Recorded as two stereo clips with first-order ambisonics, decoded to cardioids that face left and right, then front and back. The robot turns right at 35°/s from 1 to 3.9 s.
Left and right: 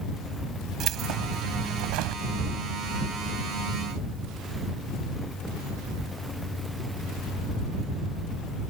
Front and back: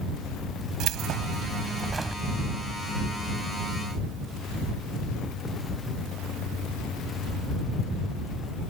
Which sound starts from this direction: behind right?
Keys jangling, at 0.8 s.